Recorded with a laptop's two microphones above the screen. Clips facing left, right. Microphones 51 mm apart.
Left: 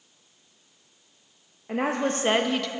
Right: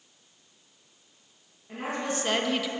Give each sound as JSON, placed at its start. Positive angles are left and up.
{"t": 1.7, "sound": "a woman speaking", "side_deg": 70, "distance_m": 0.9}